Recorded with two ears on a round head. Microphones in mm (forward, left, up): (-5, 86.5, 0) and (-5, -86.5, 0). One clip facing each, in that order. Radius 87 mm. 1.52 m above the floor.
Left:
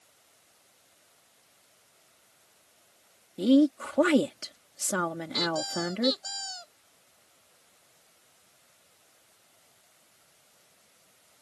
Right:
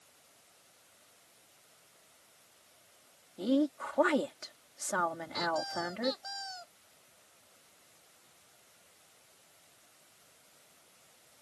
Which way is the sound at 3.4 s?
40° left (ahead or behind).